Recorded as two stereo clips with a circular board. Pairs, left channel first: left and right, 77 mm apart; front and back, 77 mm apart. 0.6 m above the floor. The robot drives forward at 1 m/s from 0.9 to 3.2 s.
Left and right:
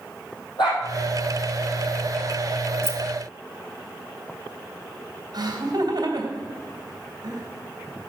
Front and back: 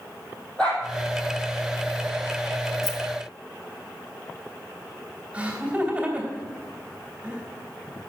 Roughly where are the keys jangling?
Behind right.